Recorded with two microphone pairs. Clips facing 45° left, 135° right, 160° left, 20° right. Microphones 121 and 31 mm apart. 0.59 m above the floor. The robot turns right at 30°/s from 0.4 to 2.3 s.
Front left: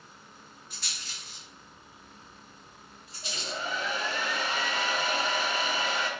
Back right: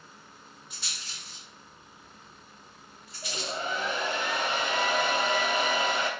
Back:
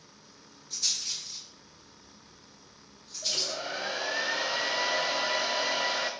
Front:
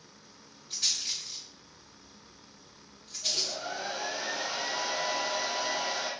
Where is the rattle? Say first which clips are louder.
Even, front 1 dB; 65° right, 2.5 m; by 3.6 s 15° right, 2.5 m.